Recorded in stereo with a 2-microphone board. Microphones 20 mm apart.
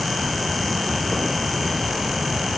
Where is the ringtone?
I don't hear a ringtone.